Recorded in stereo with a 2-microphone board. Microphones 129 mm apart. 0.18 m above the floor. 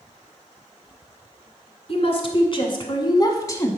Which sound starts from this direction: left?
A woman speaking, at 1.9 s.